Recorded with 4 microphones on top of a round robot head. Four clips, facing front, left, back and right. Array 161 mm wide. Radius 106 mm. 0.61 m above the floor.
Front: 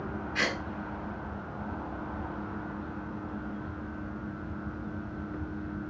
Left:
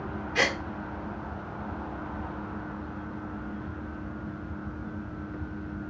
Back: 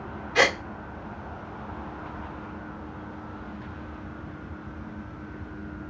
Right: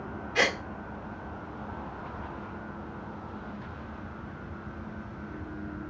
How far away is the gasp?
About 1.3 m.